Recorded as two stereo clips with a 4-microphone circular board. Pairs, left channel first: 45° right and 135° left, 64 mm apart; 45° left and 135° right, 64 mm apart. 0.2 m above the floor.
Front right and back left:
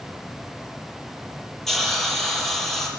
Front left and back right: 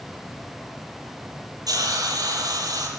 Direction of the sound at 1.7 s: 130° right.